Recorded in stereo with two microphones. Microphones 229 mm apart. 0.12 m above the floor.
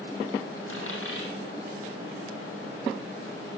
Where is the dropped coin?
70° left (ahead or behind), 1.9 m.